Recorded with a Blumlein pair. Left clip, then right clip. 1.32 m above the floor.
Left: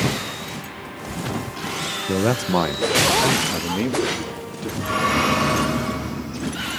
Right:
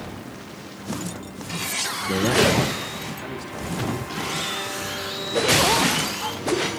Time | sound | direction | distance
2.1 | a man speaking | 10° left | 0.8 m